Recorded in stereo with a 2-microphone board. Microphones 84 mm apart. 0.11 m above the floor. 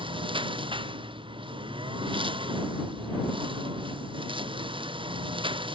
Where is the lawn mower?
85° right.